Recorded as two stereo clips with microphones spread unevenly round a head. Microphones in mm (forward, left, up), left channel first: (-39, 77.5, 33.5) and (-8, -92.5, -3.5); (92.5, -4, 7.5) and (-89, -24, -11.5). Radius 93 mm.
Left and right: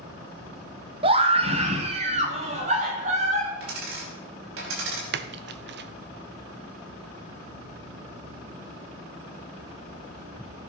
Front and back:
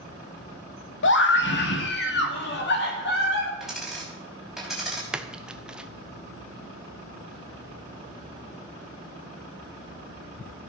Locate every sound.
1.0 s a scream: 15° right, 1.8 m; by 3.5 s 25° right, 4.5 m
3.6 s a dropped coin: 85° right, 5 m
5.1 s a splash: 90° right, 0.9 m